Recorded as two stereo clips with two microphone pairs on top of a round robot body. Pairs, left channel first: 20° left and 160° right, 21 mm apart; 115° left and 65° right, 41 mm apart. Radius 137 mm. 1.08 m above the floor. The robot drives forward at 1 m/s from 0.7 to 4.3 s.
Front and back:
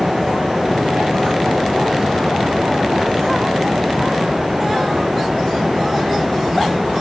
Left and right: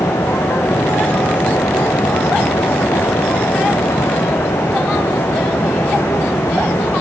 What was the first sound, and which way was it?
Only background noise.